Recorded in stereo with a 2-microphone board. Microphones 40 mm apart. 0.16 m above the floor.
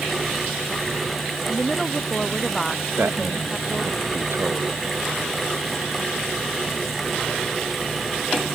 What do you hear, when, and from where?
1.5 s a woman speaking: 10° left (ahead or behind)
3.0 s a man speaking: 70° right (ahead or behind)